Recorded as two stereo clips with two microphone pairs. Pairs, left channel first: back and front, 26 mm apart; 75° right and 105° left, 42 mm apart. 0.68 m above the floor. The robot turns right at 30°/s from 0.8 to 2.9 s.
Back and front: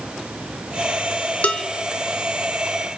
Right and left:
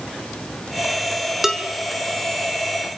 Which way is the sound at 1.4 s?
170° right.